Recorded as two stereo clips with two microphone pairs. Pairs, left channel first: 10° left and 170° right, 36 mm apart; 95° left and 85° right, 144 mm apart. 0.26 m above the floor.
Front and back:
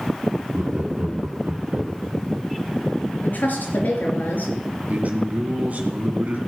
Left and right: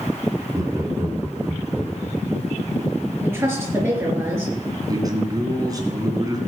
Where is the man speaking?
140° right, 2.5 m.